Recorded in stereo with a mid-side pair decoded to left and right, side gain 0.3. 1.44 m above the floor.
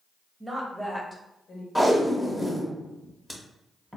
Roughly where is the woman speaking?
Ahead.